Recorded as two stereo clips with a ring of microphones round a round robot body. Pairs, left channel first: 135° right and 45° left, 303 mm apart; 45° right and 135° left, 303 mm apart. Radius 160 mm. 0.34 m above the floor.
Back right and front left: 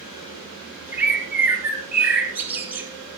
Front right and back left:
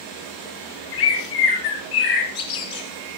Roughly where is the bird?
Ahead right.